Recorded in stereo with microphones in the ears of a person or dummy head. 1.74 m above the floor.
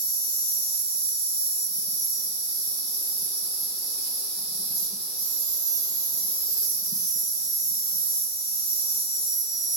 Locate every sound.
0.0 s an insect: 25° left (ahead or behind), 0.9 m